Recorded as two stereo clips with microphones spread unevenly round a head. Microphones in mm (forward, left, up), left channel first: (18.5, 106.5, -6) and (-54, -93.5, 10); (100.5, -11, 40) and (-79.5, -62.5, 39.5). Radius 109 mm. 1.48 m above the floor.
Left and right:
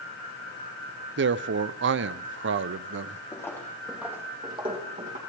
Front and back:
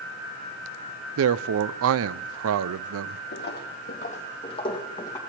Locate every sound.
1.2 s a man speaking: 150° right, 0.5 m
3.3 s footsteps: 10° right, 2.5 m; by 5.2 s 60° right, 3 m